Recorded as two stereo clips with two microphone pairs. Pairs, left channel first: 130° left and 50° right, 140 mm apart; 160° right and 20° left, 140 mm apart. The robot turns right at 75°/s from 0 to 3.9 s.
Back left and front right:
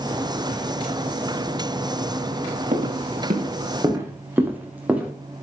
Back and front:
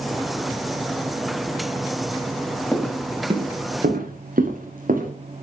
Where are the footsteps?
75° right, 6 m; by 5.1 s 30° left, 5.5 m.